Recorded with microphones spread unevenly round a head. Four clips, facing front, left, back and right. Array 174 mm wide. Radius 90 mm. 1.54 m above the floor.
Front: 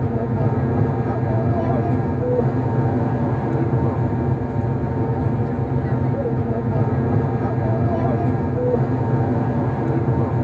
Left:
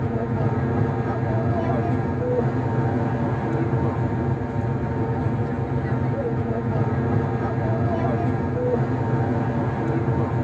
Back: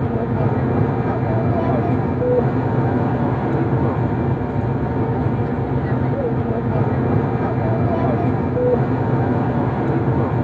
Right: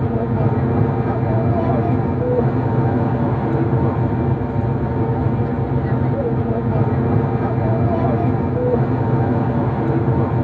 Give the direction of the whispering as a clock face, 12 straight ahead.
No whispering in this recording.